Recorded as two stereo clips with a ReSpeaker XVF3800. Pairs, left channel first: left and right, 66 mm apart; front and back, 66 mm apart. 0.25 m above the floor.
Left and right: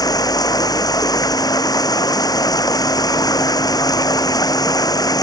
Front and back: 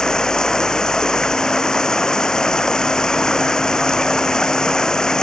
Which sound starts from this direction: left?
Running water, at 0.0 s.